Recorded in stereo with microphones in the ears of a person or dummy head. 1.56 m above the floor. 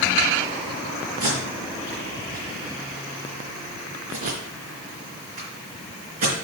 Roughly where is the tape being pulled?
Right.